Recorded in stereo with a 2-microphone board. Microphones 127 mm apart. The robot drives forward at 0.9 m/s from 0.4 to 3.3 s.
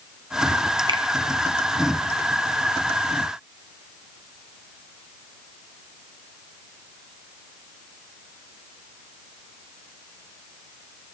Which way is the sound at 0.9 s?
40° right (ahead or behind).